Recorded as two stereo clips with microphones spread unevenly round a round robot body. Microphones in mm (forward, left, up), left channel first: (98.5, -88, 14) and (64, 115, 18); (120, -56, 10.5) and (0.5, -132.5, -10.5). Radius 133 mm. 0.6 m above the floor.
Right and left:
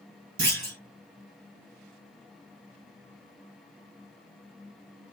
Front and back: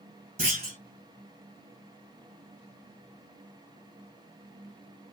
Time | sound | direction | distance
0.4 | a clunk | 155° left | 1.8 m